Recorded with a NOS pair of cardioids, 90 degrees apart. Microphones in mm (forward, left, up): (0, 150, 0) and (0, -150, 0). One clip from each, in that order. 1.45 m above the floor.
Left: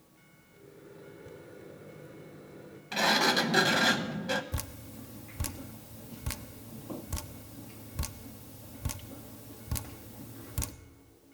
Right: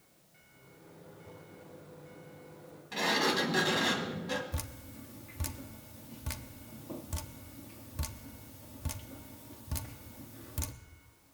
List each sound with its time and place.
0.5 s a microwave: 70° left, 3.5 m
2.9 s a sliding door: 35° left, 1.4 m
4.5 s dripping: 15° left, 0.7 m